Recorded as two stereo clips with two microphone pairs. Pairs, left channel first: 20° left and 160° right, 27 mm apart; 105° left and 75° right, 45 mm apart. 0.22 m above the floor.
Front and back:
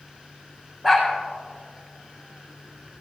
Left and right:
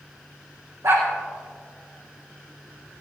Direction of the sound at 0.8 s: 90° right.